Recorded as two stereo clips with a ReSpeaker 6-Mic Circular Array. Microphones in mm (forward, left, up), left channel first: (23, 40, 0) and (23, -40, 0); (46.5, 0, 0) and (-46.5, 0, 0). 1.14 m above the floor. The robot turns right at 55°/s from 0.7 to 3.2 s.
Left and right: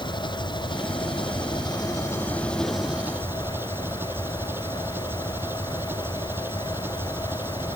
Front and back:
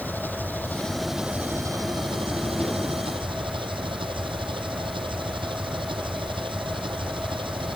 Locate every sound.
0.0 s an engine running: 70° left; by 7.8 s 155° right